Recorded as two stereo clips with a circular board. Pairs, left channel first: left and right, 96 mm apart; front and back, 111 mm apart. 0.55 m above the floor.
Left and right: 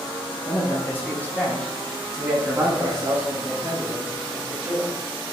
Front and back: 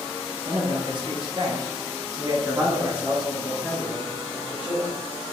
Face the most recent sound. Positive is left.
turn(degrees=-70)